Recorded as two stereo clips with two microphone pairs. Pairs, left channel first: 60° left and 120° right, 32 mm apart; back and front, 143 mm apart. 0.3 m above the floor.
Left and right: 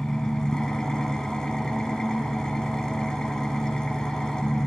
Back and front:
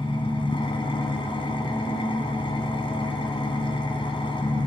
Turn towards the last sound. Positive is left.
turn(degrees=130)